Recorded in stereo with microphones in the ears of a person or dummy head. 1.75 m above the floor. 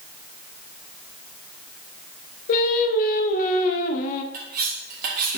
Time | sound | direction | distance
2.5 | singing | 50° left (ahead or behind) | 1.1 m
4.3 | cutlery clinking | 45° right (ahead or behind) | 2.5 m